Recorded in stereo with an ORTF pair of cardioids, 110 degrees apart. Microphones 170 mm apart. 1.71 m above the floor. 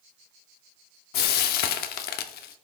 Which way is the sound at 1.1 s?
70° left.